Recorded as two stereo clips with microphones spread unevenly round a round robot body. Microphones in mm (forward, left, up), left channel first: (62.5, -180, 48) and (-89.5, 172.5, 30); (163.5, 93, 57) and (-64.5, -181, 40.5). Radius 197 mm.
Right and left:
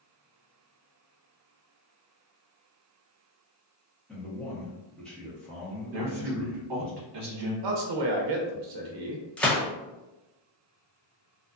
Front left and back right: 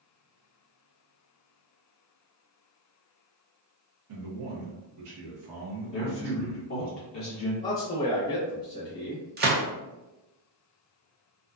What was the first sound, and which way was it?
A man speaking, 155° right.